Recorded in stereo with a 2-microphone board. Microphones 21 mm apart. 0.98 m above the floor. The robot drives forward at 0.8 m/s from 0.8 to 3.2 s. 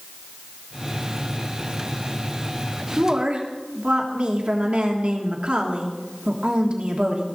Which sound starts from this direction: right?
A woman speaking, at 3.0 s.